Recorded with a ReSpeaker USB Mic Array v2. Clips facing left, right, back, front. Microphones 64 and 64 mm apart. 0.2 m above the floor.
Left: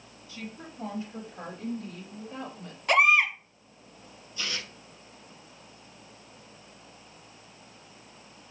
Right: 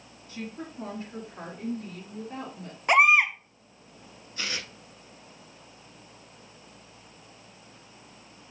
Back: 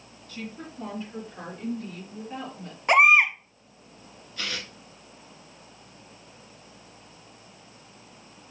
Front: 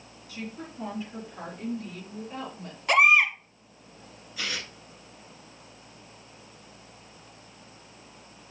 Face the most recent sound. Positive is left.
turn(degrees=-85)